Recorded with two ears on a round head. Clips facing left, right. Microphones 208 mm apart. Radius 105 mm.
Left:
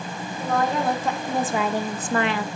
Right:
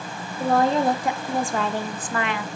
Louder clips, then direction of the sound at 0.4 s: Right 4 dB; 30° right (ahead or behind).